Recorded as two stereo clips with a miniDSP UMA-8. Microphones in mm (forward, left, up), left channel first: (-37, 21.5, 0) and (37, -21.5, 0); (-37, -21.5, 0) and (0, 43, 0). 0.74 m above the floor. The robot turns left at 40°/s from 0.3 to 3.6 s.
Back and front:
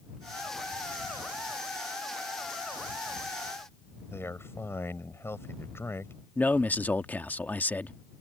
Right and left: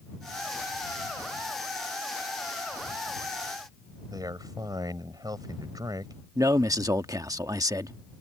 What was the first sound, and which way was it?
A man speaking, 90° left.